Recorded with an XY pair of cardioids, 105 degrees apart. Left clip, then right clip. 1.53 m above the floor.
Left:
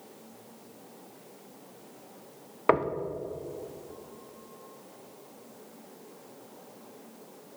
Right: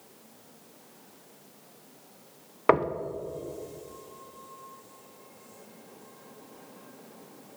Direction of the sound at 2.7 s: 10° right.